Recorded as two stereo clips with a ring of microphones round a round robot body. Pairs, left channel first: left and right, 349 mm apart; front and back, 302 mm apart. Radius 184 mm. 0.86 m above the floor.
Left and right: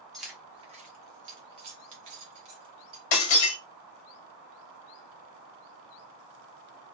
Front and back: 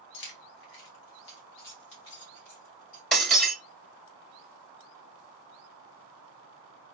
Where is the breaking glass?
90° left, 1.0 m.